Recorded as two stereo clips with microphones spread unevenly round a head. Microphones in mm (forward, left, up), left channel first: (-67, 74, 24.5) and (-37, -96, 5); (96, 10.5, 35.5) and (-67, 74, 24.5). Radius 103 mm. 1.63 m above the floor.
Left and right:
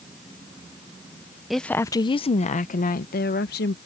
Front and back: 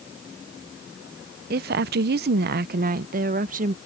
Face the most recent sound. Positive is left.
turn(degrees=115)